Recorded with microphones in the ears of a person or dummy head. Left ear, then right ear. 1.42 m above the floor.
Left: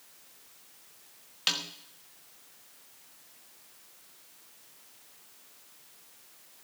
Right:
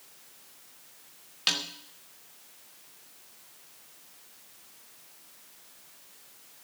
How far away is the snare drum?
About 1.2 m.